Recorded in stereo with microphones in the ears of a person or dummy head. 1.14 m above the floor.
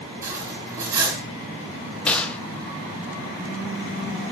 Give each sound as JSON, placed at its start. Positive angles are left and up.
{"t": 0.2, "sound": "cutlery clinking", "side_deg": -15, "distance_m": 7.0}
{"t": 2.1, "sound": "a gunshot", "side_deg": 5, "distance_m": 0.9}